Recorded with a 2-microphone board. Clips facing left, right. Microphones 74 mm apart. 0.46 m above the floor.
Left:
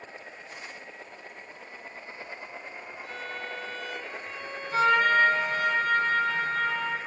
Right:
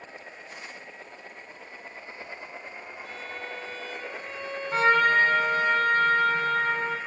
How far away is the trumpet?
About 0.5 m.